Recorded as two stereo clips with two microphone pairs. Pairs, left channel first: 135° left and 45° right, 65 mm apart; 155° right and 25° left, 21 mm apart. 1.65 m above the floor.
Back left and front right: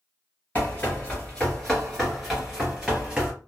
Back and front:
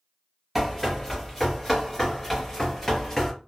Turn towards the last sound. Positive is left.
turn(degrees=-105)